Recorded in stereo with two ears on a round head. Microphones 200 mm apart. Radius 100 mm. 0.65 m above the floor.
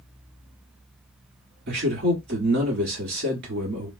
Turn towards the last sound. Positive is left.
turn(degrees=-50)  # may be behind; listen again after turning